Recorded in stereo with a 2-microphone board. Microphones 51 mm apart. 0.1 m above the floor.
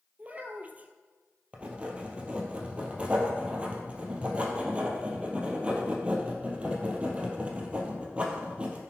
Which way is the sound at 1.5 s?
25° right (ahead or behind).